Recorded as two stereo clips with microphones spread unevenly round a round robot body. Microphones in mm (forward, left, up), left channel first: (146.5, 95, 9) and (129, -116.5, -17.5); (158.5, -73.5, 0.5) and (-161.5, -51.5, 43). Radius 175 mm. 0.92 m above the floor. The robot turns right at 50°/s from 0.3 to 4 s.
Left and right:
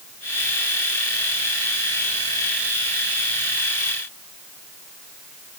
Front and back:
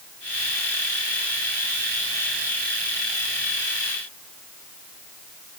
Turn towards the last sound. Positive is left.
No sound to turn to.